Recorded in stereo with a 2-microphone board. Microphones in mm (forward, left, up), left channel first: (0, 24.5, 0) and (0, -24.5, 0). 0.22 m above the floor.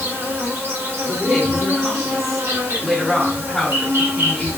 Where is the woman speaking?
5° left (ahead or behind), 1.6 m.